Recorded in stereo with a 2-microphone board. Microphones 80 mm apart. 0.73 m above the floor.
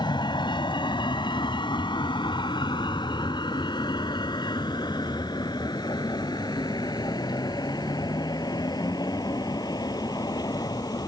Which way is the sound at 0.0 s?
75° left (ahead or behind).